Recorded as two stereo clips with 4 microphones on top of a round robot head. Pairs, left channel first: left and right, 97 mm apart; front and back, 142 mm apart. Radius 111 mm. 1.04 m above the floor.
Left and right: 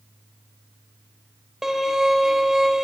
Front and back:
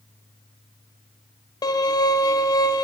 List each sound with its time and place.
1.6 s a violin: 10° right, 0.6 m